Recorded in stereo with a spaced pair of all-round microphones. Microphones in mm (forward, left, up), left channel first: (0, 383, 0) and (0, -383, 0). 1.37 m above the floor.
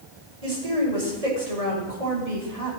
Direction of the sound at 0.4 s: 50° right (ahead or behind).